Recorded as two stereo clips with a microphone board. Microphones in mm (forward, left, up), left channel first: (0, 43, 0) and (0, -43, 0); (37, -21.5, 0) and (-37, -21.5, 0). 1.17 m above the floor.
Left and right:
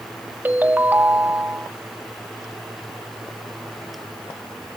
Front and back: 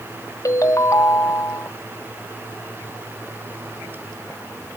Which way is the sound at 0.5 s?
25° right.